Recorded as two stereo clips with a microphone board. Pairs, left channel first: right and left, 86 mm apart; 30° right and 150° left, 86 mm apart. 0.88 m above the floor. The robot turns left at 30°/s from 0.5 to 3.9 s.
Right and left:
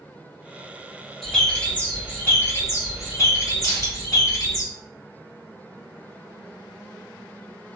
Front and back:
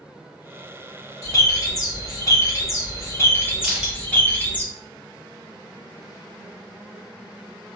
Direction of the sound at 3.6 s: 125° right.